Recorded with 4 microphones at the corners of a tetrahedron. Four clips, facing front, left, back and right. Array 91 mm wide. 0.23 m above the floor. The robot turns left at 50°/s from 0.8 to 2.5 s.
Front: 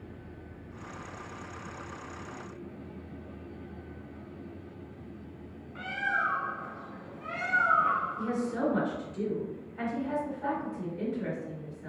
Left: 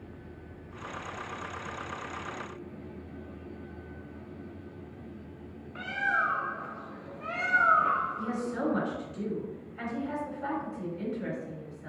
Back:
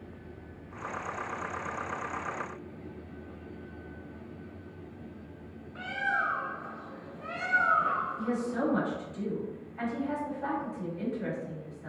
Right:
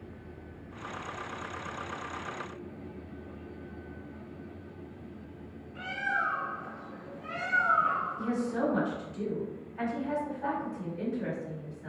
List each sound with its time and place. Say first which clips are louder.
5.8 s a bird: left 3 dB, even; 85° left, 0.5 m
8.2 s a woman speaking: right 1 dB, even; 80° right, 1.5 m